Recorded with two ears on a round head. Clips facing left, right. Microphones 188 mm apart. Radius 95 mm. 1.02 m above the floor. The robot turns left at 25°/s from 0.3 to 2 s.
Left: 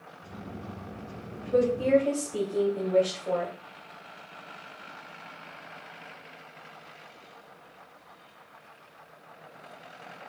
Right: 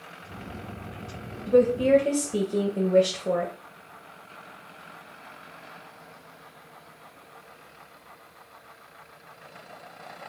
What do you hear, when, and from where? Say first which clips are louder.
1.5 s a woman speaking: right 4 dB; 40° right (ahead or behind), 0.9 m; by 3.5 s 50° right (ahead or behind), 0.9 m